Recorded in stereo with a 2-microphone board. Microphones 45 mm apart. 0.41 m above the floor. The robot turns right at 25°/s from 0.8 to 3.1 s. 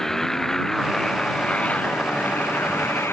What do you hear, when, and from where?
0.0 s a motorcycle: 10° left (ahead or behind); by 3.1 s 65° left (ahead or behind)